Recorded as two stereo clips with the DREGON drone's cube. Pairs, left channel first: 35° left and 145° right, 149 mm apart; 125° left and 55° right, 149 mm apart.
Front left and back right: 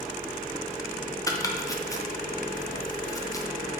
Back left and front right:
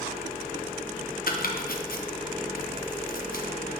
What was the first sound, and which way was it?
Chopping, 105° left.